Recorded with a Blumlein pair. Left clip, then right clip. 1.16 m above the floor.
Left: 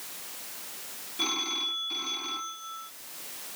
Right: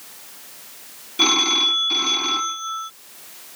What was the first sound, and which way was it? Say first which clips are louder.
A phone ringing: right 13 dB; 30° right.